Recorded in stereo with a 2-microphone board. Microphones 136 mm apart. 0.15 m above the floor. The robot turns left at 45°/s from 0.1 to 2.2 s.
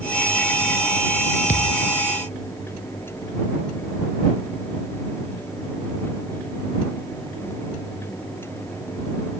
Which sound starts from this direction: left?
A thud, at 1.5 s.